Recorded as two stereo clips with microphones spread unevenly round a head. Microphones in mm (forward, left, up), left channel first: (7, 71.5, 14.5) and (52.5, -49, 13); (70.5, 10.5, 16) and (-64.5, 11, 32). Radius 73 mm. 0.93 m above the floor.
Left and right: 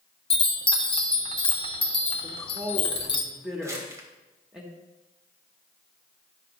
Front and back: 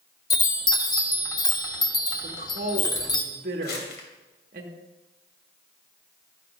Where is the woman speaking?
155° right, 1.8 m.